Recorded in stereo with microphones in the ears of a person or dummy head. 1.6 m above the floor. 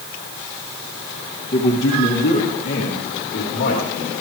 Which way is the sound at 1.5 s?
30° left (ahead or behind).